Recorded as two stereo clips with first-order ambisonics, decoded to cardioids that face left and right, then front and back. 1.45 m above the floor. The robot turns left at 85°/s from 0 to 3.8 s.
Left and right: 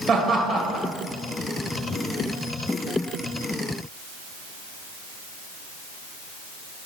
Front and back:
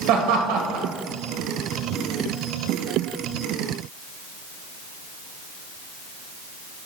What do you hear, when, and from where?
0.1 s laughter: 160° right, 1.6 m; by 0.9 s 130° left, 1.6 m